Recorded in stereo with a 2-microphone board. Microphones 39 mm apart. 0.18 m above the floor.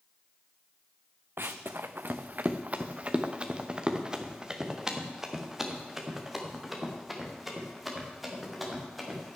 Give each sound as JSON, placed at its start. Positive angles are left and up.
{"t": 1.4, "sound": "running footsteps", "side_deg": -80, "distance_m": 1.0}